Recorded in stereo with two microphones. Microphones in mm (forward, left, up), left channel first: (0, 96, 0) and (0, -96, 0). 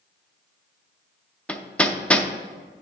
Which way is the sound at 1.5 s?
5° left (ahead or behind).